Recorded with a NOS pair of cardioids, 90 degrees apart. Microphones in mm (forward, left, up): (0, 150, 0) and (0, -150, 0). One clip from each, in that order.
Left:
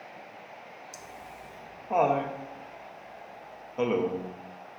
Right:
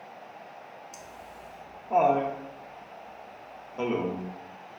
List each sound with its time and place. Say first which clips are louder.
0.9 s laughter: even; 10° left, 0.6 m